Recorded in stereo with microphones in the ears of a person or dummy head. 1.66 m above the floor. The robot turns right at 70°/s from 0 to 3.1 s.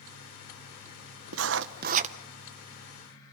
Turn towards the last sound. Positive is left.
turn(degrees=35)